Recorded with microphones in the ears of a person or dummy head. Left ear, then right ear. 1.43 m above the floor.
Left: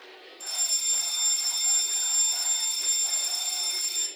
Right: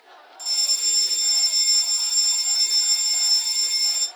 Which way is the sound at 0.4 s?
65° right (ahead or behind).